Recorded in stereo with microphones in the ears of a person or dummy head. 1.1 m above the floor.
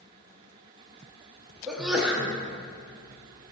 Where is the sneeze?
5° right (ahead or behind), 0.7 m.